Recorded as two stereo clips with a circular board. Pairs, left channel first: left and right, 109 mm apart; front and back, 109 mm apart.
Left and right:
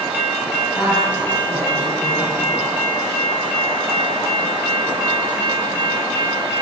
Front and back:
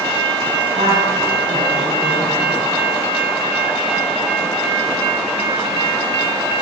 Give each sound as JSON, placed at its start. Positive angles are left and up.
{"t": 0.8, "sound": "a woman speaking", "azimuth_deg": 160, "distance_m": 10.0}